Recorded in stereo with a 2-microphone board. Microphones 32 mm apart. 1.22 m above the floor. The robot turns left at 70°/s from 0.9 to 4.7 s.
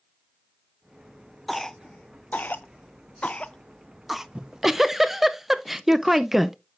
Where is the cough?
5° left (ahead or behind), 0.6 m; by 4.2 s 15° right (ahead or behind), 0.6 m.